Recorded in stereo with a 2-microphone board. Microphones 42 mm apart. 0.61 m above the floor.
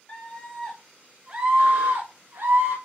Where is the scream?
30° left (ahead or behind), 1.0 m; by 2.8 s 65° right (ahead or behind), 1.6 m.